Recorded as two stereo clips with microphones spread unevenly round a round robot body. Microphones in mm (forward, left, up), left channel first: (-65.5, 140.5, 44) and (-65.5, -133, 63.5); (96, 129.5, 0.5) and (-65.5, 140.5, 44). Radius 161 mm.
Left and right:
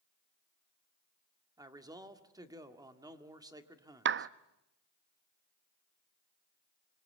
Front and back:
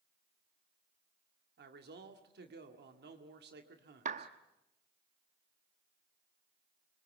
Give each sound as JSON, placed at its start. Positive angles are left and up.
{"t": 1.6, "sound": "a man speaking", "azimuth_deg": -165, "distance_m": 2.0}
{"t": 4.0, "sound": "a clap", "azimuth_deg": -130, "distance_m": 0.6}